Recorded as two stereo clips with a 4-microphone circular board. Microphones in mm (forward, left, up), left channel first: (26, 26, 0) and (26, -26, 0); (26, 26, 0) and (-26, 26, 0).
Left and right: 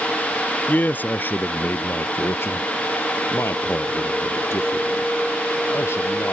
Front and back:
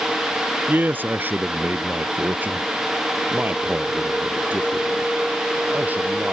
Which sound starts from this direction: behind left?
A man speaking, at 0.7 s.